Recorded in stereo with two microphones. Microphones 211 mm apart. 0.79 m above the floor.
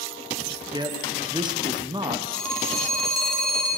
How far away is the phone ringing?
About 2.5 m.